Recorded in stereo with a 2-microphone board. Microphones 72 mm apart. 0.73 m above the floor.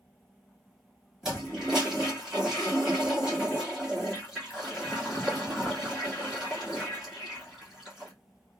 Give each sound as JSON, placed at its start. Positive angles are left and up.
{"t": 1.2, "sound": "a toilet flushing", "side_deg": -5, "distance_m": 1.5}